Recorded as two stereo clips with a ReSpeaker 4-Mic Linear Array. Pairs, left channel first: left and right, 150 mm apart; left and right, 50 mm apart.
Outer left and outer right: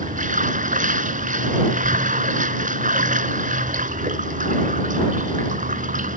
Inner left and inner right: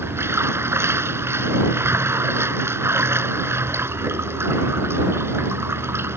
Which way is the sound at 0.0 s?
60° right (ahead or behind).